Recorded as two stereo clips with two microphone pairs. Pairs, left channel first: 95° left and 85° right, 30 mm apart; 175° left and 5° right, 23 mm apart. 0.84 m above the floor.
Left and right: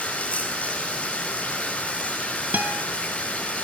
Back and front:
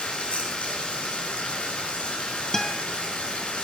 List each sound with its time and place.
0.0 s running water: 150° left, 8 m
2.5 s a guitar: 115° right, 3 m